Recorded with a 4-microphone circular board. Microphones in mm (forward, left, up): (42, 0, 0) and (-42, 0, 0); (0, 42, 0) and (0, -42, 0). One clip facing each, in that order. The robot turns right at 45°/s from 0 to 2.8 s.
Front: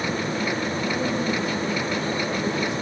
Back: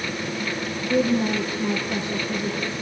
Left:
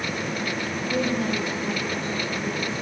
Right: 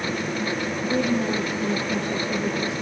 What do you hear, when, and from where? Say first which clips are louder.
0.9 s a woman speaking: back 7 dB, right 2 dB; 160° right, 5 m; by 2.8 s 75° right, 5 m